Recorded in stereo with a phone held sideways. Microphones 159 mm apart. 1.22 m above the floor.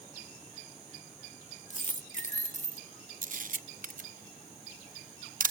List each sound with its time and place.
1.7 s a dropped coin: 50° left (ahead or behind), 1.1 m
3.2 s a camera shutter: 60° right (ahead or behind), 0.8 m